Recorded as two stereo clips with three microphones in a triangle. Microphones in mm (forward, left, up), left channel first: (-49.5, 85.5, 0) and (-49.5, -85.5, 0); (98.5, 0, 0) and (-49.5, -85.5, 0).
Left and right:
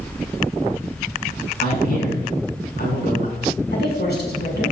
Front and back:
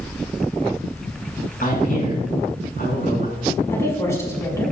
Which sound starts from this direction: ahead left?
A man speaking, at 1.6 s.